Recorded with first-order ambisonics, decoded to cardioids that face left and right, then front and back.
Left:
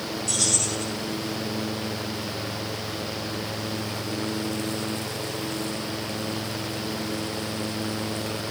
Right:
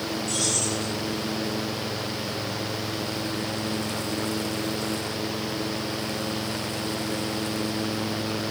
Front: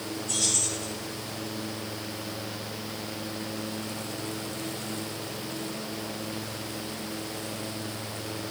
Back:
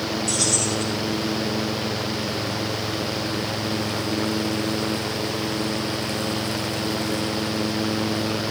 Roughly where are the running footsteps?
I don't hear running footsteps.